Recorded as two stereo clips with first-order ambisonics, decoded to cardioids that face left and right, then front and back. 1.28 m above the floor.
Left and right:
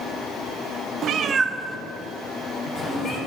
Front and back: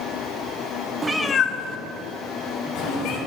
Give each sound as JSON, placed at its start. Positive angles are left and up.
{"t": 1.0, "sound": "a cat meowing", "azimuth_deg": -120, "distance_m": 0.6}